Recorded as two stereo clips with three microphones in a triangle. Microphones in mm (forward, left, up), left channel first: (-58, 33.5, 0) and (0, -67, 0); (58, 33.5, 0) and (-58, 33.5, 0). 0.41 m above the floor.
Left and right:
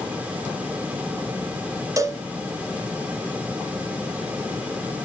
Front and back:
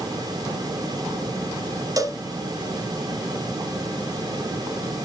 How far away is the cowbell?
About 0.8 m.